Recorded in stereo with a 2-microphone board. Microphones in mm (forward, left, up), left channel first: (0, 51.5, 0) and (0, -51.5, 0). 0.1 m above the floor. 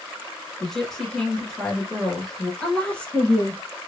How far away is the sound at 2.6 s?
About 1.2 m.